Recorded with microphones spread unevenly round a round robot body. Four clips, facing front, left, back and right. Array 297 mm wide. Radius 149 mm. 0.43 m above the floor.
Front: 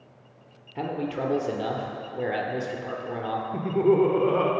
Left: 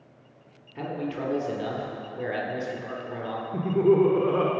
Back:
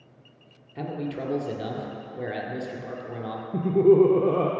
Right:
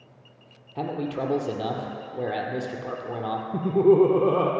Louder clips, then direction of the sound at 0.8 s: Right 3 dB, front 2 dB; 70° right.